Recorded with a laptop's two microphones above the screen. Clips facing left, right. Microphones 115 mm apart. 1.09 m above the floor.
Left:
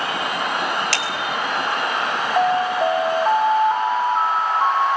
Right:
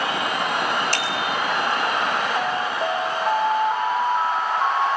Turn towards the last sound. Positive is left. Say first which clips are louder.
# left 6 dB
turn(degrees=35)  # may be behind; listen again after turning